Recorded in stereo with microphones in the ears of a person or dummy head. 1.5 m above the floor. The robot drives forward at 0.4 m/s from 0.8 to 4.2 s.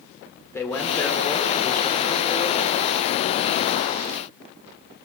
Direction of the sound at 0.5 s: 15° left (ahead or behind).